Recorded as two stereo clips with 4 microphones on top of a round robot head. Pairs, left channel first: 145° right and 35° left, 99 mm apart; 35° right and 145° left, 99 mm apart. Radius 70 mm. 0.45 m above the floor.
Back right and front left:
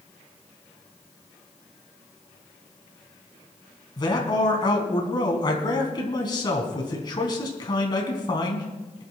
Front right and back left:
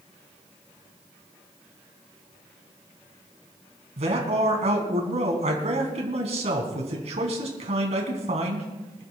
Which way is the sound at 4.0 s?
165° left.